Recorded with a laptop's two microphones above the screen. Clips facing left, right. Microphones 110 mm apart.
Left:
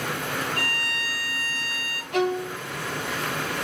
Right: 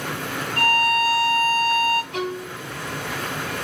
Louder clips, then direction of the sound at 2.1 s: Left 4 dB; 70° left (ahead or behind).